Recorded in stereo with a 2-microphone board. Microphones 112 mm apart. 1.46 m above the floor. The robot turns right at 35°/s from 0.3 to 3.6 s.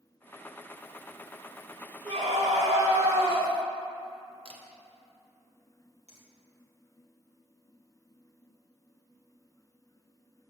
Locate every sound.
2.0 s a scream: 100° right, 2.0 m; by 3.5 s 50° right, 2.0 m
4.5 s a camera shutter: 50° right (ahead or behind), 0.9 m
6.1 s a finger snap: 65° right (ahead or behind), 2 m